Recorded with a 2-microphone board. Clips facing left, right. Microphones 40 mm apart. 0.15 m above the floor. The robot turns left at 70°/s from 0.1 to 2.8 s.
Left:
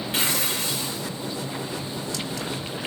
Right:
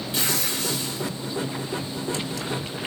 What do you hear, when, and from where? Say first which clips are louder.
0.1 s tearing paper: left 1 dB; 145° left, 7 m; by 1.1 s 80° left, 7 m